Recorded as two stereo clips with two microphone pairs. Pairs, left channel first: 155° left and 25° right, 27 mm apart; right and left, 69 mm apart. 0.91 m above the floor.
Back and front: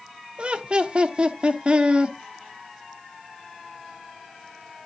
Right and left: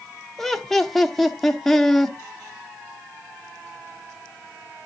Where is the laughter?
10° right, 0.7 m.